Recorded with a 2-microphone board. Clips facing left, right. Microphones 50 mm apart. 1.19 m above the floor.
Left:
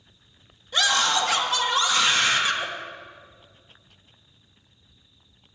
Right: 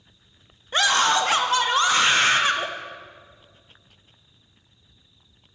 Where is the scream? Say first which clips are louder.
Right 3 dB; 40° right (ahead or behind), 0.6 m.